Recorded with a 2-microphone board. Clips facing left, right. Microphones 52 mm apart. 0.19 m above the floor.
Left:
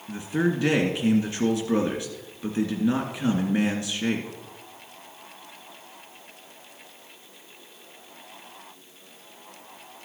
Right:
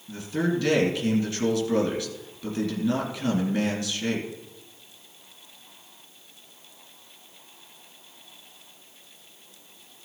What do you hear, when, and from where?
0.1 s a man speaking: 25° left (ahead or behind), 2.5 m